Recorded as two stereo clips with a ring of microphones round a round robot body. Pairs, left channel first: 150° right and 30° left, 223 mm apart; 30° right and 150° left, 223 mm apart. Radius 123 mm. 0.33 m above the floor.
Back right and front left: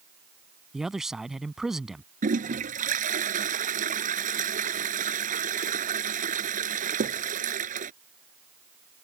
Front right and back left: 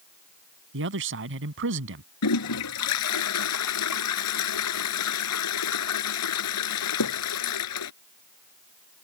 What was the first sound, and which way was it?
A man speaking, 120° left.